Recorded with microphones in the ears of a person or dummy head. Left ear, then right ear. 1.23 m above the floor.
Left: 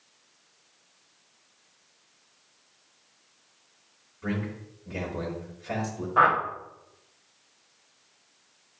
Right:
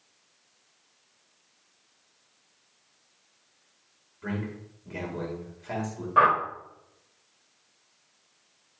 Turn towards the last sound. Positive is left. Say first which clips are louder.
# even
turn(degrees=-35)  # may be behind; listen again after turning